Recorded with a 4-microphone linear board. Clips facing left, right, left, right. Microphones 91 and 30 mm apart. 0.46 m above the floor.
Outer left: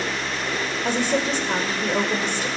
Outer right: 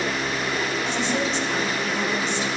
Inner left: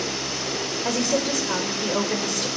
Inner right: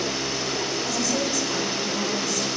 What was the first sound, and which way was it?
A woman speaking, 55° left (ahead or behind).